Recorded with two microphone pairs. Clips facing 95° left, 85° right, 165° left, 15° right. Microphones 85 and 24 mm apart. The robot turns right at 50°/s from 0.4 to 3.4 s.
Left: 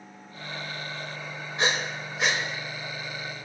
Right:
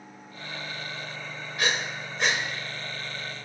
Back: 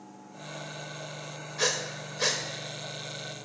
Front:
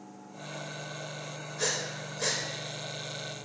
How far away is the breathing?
About 0.8 m.